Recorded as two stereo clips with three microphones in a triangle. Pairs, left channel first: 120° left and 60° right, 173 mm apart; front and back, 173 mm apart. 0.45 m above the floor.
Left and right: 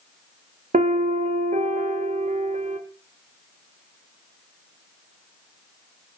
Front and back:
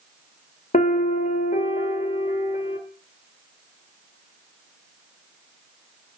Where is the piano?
30° right, 0.8 m.